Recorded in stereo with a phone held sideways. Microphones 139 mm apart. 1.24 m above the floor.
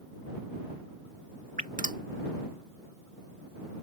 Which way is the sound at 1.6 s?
70° right (ahead or behind).